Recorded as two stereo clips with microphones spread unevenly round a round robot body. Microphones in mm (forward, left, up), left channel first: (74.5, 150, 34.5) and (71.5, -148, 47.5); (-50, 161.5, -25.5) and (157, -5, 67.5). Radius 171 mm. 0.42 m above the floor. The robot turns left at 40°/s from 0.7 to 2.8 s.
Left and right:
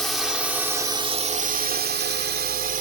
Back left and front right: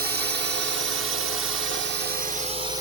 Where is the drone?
10° left; by 2.8 s 140° right.